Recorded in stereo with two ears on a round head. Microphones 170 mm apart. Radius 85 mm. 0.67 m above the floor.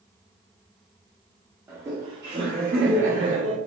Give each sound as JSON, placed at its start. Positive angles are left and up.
{"t": 1.7, "sound": "laughter", "side_deg": -15, "distance_m": 0.9}